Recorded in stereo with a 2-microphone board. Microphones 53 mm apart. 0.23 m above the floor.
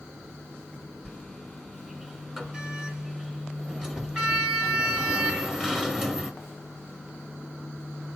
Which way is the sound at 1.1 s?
10° right (ahead or behind).